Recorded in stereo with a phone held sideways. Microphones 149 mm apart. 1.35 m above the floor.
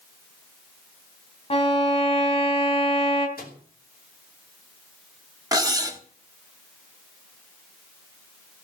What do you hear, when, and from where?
1.5 s a violin: 40° left (ahead or behind), 2.5 m
3.4 s a microwave: 85° left, 3 m
5.5 s cutlery clinking: 25° right (ahead or behind), 1.6 m